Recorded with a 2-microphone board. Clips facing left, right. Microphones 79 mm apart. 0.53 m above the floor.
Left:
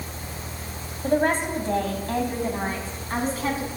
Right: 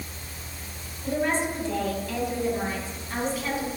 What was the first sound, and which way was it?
A woman speaking, 55° left (ahead or behind).